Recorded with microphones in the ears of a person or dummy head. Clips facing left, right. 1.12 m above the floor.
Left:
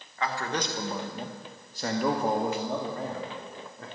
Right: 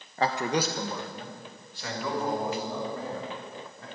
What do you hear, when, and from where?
0.2 s a man speaking: 25° right (ahead or behind), 1.1 m; by 3.9 s 55° left (ahead or behind), 3.5 m